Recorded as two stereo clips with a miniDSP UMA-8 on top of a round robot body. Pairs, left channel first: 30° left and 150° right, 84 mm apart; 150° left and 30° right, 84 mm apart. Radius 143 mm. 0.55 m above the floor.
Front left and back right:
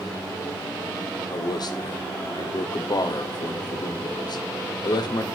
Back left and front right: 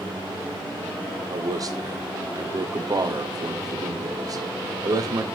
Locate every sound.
1.3 s a man speaking: 5° left, 1.6 m